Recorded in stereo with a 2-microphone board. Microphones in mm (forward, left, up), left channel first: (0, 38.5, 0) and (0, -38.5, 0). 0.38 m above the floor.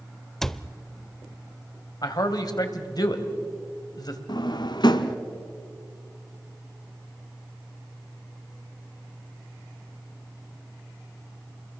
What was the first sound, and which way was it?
A cupboard door, 5° left (ahead or behind).